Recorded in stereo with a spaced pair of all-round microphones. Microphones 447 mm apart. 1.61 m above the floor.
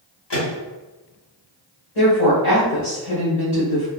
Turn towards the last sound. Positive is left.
turn(degrees=75)  # may be behind; listen again after turning